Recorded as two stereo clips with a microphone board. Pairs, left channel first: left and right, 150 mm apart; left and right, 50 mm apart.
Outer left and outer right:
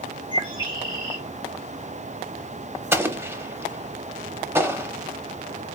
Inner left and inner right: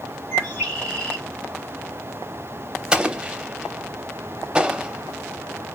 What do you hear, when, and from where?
0.3 s a bird: 30° left (ahead or behind), 2.5 m
2.9 s an explosion: 15° right (ahead or behind), 0.6 m